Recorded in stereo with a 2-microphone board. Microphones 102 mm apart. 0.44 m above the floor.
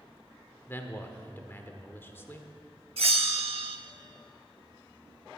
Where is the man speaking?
20° left (ahead or behind), 1.0 m.